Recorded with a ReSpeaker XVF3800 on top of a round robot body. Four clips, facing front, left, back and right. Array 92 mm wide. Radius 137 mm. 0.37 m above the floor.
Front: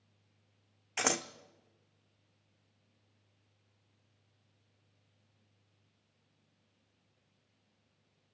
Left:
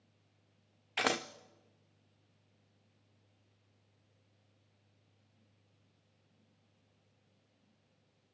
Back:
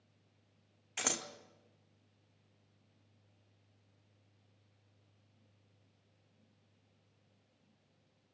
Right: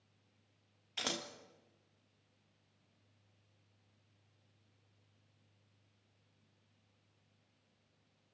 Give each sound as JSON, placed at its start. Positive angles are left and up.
{"t": 1.0, "sound": "scissors", "azimuth_deg": 60, "distance_m": 1.1}